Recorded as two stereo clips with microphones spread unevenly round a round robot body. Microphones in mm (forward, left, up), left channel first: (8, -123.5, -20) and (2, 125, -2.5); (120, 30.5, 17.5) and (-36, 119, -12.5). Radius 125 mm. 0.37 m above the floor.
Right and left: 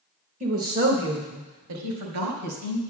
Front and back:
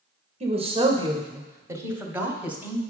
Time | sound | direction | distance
0.4 | a woman speaking | 145° left | 1.0 m